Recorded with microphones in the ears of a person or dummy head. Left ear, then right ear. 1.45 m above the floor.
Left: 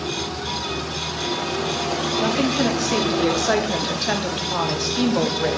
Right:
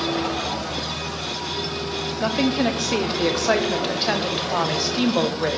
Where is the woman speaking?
15° right (ahead or behind), 0.9 m.